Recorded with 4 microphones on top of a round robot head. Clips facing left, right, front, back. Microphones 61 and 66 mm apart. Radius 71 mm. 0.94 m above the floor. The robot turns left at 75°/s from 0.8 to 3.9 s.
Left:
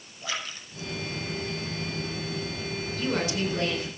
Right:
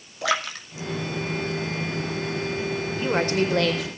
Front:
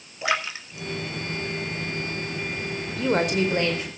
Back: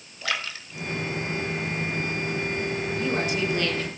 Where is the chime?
I don't hear a chime.